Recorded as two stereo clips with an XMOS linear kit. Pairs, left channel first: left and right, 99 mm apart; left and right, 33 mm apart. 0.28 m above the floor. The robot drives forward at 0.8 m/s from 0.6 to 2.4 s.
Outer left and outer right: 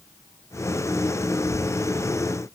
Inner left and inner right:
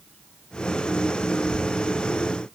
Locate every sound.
Only background noise.